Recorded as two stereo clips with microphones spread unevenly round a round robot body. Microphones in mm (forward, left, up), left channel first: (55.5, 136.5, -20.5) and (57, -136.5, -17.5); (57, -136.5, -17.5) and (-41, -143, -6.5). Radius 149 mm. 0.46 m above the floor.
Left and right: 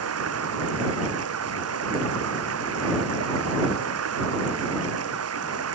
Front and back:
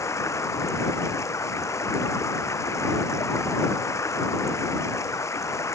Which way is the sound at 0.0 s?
55° right.